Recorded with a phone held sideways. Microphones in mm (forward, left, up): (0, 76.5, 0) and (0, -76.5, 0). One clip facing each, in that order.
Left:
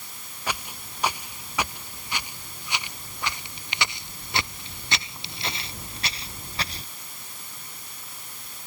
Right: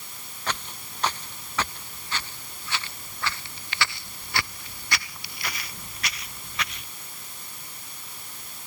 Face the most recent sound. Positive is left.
turn(degrees=35)  # may be behind; listen again after turning